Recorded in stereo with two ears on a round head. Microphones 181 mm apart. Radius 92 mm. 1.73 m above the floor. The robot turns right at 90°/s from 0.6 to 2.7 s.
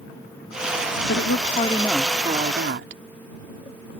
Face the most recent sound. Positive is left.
turn(degrees=-115)